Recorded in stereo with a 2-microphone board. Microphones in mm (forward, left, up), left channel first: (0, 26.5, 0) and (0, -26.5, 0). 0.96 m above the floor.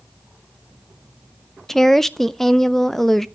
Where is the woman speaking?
5° left (ahead or behind), 0.5 m.